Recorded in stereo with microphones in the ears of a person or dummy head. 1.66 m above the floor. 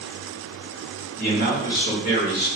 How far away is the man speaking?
About 1.9 m.